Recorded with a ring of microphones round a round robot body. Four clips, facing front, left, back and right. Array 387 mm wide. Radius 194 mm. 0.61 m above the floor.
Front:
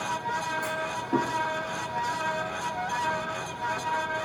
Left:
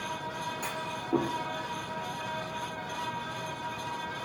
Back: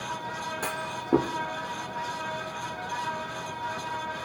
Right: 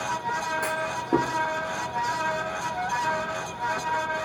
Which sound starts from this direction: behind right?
A clunk, at 0.6 s.